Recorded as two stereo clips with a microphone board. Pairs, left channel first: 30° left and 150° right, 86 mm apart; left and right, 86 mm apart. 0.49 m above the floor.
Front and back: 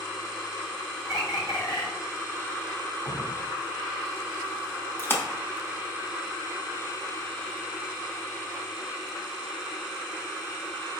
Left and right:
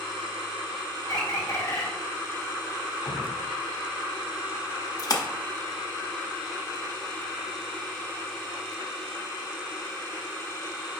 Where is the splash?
80° left, 0.6 m.